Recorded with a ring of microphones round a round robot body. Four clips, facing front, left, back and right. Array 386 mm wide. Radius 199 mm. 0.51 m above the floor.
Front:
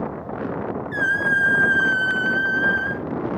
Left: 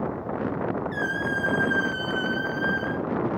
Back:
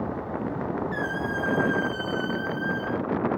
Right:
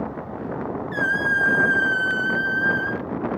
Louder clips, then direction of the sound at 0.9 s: Right 4 dB, front 6 dB; 15° right.